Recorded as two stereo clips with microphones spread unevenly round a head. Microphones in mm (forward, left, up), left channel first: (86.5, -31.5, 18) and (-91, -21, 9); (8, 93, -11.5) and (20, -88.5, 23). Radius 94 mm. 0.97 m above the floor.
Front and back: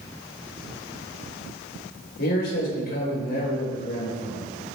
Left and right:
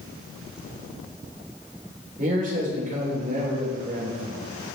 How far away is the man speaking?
About 4 m.